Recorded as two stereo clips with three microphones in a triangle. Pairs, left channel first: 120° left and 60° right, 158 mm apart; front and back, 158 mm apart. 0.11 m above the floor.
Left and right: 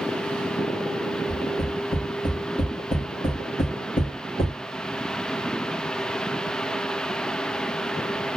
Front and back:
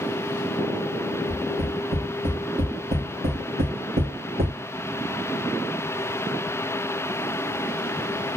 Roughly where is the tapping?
Behind.